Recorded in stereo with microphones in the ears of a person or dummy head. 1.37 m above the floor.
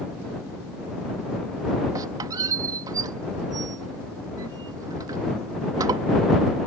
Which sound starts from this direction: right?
A squeak, at 1.9 s.